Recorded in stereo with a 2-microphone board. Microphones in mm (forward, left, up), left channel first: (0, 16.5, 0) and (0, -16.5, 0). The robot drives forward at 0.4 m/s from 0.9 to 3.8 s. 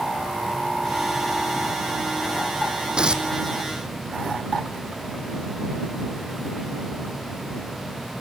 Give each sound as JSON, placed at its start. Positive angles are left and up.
{"t": 3.0, "sound": "tearing paper", "side_deg": -25, "distance_m": 1.1}